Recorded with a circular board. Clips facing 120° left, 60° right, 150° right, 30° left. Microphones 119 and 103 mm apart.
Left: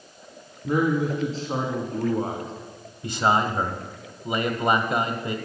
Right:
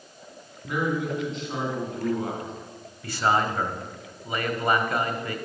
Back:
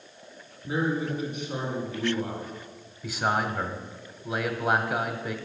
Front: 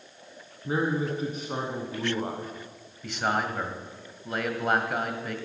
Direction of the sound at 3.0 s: 130° left.